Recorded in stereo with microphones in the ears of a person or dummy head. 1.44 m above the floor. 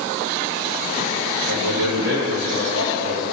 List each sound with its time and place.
1.5 s a man speaking: 60° right (ahead or behind), 2 m; by 3.2 s 75° right (ahead or behind), 3 m